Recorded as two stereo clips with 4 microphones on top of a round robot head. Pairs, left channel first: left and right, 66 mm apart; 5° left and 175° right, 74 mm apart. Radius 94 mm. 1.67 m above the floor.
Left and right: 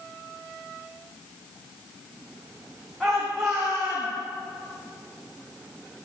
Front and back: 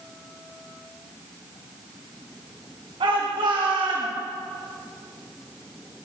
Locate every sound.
3.0 s a shout: straight behind, 2.5 m; by 4.1 s 155° right, 3 m